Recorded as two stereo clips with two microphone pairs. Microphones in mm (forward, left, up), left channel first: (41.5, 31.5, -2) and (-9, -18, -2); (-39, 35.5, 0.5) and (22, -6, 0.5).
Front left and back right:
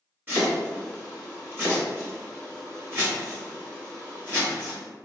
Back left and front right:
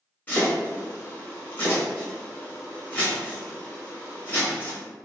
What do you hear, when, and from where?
0.3 s chopping: 170° right, 1.9 m